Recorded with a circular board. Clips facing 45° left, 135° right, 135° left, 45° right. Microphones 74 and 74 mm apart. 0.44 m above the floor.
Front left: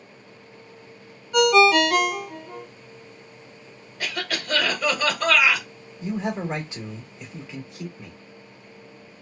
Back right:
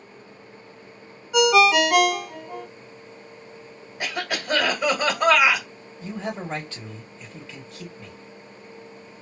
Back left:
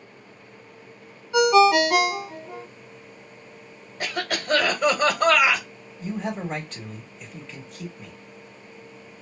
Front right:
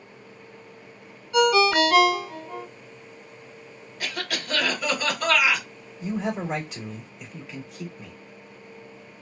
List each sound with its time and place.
1.3 s a ringtone: 150° left, 0.5 m
4.0 s a cough: 160° left, 1.3 m
6.0 s a man speaking: 20° left, 1.4 m